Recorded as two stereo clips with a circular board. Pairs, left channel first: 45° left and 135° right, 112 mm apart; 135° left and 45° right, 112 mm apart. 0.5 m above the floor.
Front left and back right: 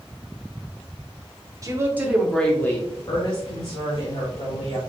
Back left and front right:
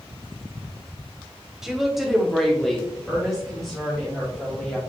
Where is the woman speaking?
130° right, 0.9 m; by 4.8 s 50° left, 1.9 m.